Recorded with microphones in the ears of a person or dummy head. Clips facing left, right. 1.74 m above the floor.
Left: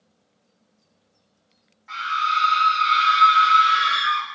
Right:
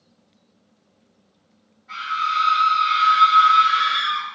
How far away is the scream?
About 0.8 m.